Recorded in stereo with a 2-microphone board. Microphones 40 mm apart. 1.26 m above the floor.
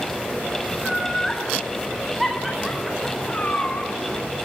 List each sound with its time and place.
0.8 s laughter: 5° right (ahead or behind), 4 m
3.3 s a cat meowing: 30° left (ahead or behind), 4 m